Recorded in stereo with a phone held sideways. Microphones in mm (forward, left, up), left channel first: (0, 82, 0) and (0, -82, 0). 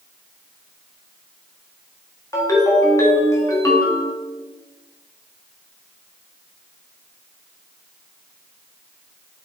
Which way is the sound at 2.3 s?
20° left (ahead or behind).